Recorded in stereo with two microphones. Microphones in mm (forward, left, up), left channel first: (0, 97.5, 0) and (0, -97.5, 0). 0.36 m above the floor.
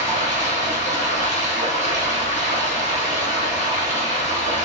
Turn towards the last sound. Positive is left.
turn(degrees=-40)  # may be behind; listen again after turning